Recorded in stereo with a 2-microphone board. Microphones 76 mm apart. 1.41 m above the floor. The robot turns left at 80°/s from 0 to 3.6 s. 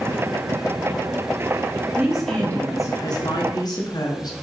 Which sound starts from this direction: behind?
A woman speaking, at 2.0 s.